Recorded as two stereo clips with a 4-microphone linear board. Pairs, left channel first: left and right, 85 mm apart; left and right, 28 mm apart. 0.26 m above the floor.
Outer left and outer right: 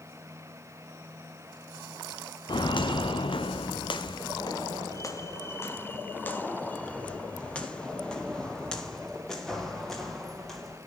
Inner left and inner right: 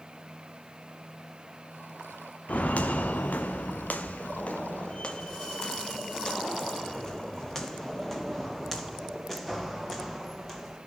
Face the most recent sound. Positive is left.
turn(degrees=5)  # may be behind; listen again after turning